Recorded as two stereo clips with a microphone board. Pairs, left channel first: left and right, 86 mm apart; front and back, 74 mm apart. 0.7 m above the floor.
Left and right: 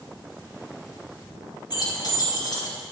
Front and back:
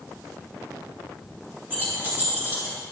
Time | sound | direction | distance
1.7 | keys jangling | 120° left | 3.5 m